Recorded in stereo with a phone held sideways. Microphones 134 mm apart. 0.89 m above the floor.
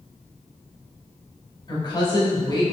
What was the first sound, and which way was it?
A woman speaking, 35° left (ahead or behind).